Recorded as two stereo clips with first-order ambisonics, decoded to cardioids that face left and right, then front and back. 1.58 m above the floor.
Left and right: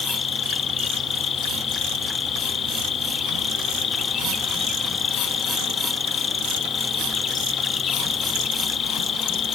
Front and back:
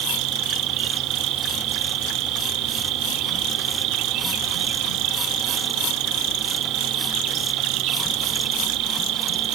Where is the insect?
150° left.